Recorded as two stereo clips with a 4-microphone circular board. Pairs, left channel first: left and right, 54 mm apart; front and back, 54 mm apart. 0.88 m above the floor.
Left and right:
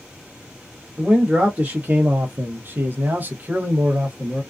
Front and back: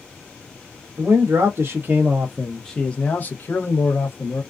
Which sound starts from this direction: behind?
A man speaking, at 1.0 s.